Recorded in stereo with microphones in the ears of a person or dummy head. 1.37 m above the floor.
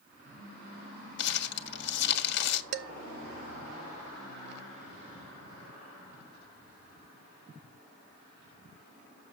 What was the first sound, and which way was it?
Crumpling, 65° left (ahead or behind).